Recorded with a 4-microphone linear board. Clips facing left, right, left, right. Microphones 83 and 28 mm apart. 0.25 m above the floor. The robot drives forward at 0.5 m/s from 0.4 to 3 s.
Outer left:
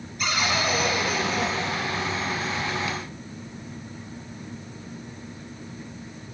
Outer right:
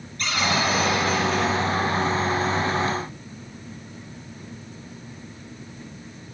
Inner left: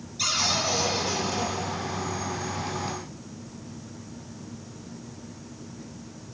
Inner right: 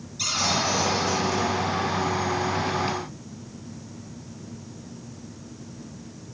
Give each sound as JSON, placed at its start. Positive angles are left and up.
{"t": 0.2, "sound": "a cupboard door", "side_deg": 5, "distance_m": 6.0}